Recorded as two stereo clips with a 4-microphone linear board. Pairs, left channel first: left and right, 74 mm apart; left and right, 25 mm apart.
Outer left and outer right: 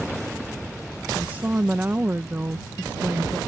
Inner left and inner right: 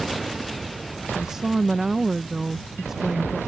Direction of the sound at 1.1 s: 25° right (ahead or behind).